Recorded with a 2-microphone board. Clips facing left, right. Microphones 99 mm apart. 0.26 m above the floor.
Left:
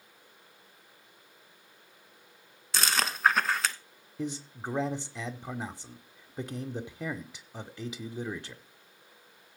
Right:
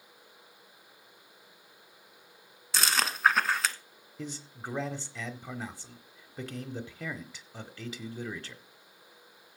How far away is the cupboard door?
I don't hear a cupboard door.